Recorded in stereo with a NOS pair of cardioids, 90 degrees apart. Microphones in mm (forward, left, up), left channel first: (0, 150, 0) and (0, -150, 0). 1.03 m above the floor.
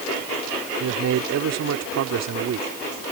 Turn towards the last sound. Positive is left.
turn(degrees=-60)